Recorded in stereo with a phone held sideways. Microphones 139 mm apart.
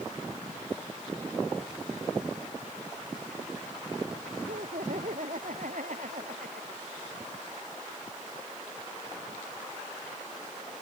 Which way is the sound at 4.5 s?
65° right (ahead or behind).